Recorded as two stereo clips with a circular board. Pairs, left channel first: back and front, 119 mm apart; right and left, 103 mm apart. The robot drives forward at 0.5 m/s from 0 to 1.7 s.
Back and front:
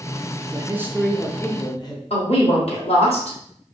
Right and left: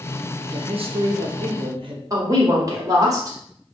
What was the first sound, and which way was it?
A man speaking, 60° left.